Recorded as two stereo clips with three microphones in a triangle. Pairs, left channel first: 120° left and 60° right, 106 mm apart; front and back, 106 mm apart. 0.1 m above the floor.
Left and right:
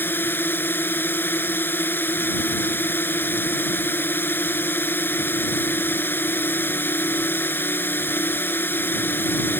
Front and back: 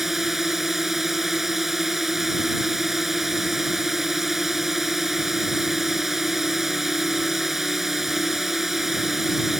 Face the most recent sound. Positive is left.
turn(degrees=95)